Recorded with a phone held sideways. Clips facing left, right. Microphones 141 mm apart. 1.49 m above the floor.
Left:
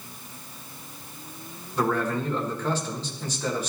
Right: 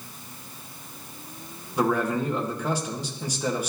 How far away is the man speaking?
About 1.1 m.